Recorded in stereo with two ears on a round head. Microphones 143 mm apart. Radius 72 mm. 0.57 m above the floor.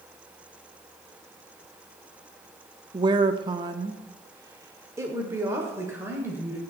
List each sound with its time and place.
2.9 s a woman speaking: 25° right (ahead or behind), 0.6 m; by 6.6 s 15° right (ahead or behind), 2 m